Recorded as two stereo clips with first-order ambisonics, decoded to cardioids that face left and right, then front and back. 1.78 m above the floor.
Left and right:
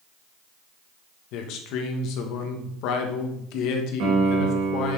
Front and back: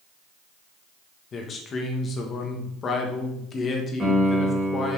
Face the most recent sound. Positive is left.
turn(degrees=-95)